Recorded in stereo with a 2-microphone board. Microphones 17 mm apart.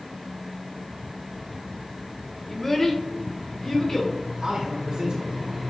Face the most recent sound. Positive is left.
turn(degrees=-60)  # may be behind; listen again after turning